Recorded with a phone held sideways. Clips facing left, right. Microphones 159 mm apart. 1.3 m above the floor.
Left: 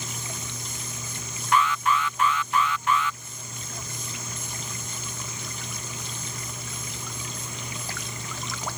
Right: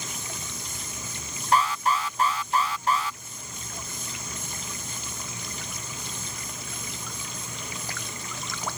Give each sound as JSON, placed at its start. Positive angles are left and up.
{"t": 1.5, "sound": "an alarm", "side_deg": -35}